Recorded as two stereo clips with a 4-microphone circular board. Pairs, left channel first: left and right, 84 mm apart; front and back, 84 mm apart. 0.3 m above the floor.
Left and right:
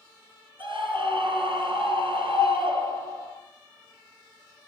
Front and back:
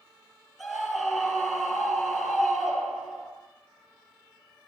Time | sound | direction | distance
0.6 | a scream | 95° right | 7.5 m